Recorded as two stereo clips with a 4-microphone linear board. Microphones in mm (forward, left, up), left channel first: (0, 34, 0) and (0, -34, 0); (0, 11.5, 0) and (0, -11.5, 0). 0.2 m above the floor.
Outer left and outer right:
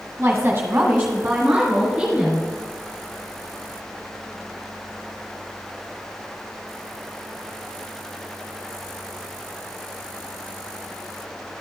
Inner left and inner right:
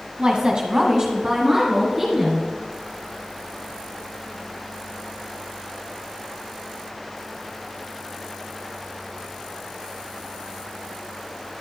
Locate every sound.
0.2 s a woman speaking: 20° right (ahead or behind), 1.2 m; by 2.5 s 5° right (ahead or behind), 3 m